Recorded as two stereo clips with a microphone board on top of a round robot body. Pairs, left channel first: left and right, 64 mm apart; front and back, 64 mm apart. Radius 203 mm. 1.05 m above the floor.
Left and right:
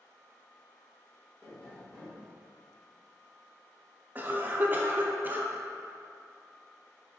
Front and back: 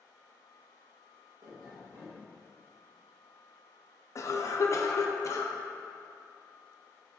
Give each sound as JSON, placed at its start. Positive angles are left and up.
{"t": 1.4, "sound": "tapping", "azimuth_deg": 170, "distance_m": 1.8}
{"t": 4.2, "sound": "a cough", "azimuth_deg": -30, "distance_m": 0.6}